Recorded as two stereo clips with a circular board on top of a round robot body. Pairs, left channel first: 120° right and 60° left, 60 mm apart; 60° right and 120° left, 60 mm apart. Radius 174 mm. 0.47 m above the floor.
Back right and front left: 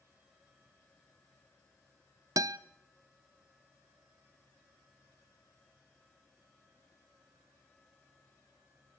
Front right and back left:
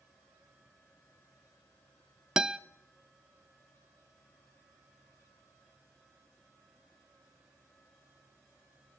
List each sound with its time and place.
2.4 s a guitar: 40° left, 0.5 m